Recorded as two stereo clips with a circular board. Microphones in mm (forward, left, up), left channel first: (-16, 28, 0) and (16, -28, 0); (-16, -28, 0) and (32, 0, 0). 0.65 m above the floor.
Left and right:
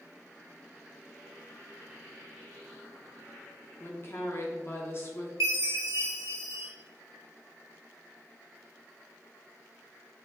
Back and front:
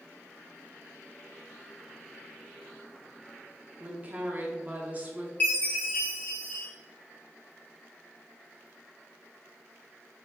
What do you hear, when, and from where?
3.8 s a woman speaking: 80° left, 0.9 m
5.4 s a chime: 90° right, 1.2 m